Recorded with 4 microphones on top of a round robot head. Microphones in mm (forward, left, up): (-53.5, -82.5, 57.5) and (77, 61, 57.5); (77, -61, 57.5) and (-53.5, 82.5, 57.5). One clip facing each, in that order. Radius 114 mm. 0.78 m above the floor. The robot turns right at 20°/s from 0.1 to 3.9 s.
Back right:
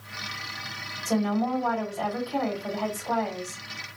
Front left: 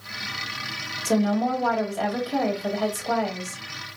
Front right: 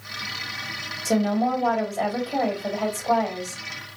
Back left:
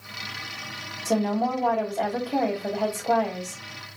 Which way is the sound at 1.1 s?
25° left.